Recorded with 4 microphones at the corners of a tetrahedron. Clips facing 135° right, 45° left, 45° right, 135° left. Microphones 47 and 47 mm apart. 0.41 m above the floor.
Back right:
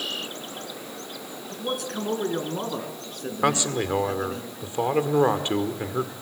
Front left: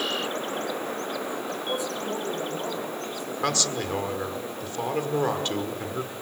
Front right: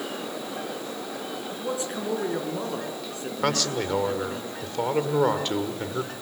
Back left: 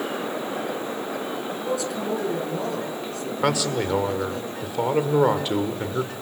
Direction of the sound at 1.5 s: 110° right.